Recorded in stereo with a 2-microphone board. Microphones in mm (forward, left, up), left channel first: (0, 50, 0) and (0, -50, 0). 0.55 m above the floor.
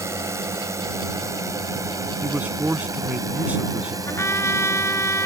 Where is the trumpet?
25° left (ahead or behind).